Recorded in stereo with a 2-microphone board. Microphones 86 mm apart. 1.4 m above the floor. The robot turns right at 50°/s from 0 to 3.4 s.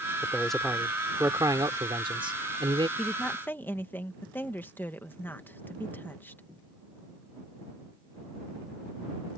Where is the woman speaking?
5° left (ahead or behind); by 6.4 s 25° left (ahead or behind).